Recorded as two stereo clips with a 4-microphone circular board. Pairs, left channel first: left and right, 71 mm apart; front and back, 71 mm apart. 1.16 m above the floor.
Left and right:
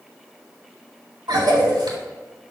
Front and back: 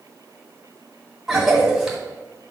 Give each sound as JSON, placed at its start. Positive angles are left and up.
{"t": 1.3, "sound": "a cough", "azimuth_deg": -95, "distance_m": 2.0}